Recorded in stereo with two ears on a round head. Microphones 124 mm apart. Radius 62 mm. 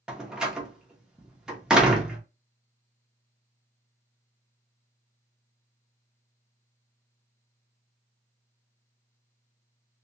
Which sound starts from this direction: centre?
A door slam, at 0.1 s.